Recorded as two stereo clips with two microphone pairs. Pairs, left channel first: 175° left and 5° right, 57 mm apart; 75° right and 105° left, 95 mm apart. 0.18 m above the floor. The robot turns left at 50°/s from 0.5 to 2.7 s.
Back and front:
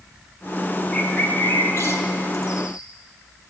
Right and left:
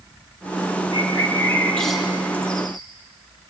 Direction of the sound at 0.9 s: 110° right.